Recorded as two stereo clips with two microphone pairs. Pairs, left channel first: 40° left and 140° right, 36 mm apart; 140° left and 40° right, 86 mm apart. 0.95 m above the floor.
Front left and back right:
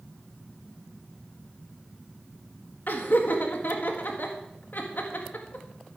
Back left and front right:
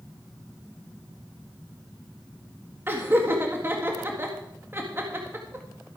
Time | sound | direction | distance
2.9 | laughter | 20° left | 1.8 m